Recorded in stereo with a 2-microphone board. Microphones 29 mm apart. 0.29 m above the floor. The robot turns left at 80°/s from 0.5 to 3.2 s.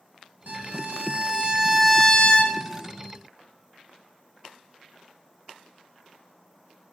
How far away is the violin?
About 0.8 m.